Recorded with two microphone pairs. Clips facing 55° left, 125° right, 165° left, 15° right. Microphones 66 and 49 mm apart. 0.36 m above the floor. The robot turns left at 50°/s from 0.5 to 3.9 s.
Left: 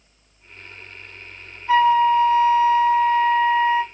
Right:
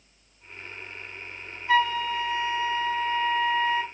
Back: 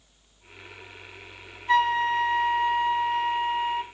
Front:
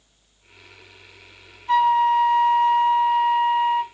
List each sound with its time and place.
1.7 s a flute: 60° left, 1.7 m; by 3.8 s 50° right, 1.7 m